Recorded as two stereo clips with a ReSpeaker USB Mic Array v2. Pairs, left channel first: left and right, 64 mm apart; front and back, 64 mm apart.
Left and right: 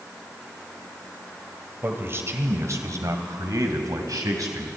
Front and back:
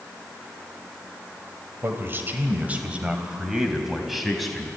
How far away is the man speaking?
About 2.5 m.